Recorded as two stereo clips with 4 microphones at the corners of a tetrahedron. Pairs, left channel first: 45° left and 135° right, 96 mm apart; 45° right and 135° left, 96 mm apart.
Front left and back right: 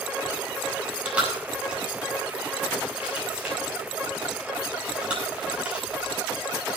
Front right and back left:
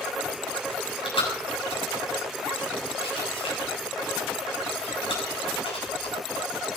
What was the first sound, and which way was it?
Chewing, 55° right.